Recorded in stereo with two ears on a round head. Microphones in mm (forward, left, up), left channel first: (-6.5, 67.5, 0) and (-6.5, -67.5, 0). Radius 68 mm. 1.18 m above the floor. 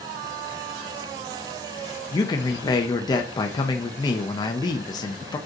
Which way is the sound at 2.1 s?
30° left (ahead or behind).